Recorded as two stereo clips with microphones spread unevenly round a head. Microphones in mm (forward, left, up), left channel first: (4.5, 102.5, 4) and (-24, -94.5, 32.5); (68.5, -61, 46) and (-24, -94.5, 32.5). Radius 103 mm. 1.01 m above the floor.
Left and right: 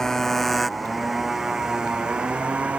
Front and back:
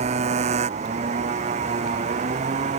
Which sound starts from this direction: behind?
A motorcycle, at 0.0 s.